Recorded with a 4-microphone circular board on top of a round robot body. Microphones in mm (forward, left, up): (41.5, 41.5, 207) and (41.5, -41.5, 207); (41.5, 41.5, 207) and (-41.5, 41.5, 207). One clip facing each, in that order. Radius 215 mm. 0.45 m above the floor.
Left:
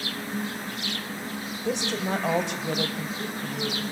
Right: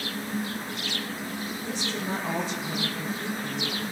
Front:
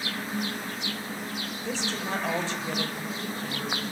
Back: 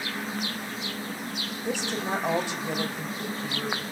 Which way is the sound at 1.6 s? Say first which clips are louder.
Left 6 dB, back 3 dB; 105° left.